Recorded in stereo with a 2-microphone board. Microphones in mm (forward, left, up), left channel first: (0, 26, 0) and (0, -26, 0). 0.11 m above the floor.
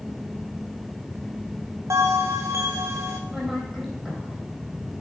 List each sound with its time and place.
1.9 s a bell: 70° right (ahead or behind), 1.3 m
3.3 s a woman speaking: 5° right (ahead or behind), 3.5 m